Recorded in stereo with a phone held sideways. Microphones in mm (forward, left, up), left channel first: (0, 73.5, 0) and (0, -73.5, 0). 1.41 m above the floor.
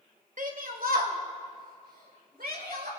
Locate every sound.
0.4 s a shout: 60° right (ahead or behind), 2 m; by 2.9 s 85° right, 5.5 m